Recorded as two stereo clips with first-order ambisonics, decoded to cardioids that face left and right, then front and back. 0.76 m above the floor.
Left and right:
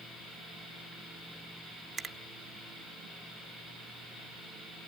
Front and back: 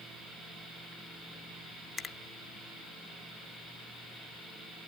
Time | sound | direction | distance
2.0 | a finger snap | 30° right | 0.6 m